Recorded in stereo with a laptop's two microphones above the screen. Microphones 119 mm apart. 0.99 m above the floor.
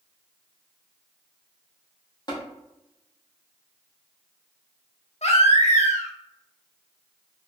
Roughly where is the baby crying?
Left.